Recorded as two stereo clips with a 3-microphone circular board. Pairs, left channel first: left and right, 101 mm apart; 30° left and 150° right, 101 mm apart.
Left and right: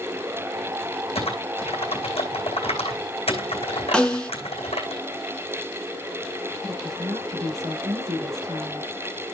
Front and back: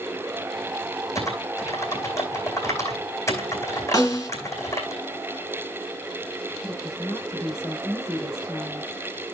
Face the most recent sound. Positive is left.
turn(degrees=-35)